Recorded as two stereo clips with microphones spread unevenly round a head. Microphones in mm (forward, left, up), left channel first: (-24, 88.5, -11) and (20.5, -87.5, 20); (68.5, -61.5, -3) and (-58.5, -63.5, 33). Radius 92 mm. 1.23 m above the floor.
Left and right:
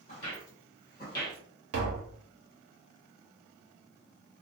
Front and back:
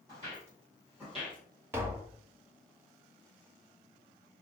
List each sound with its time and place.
0.1 s footsteps: 150° left, 1.6 m; by 1.4 s 105° left, 1.5 m
1.7 s tapping: 100° right, 0.7 m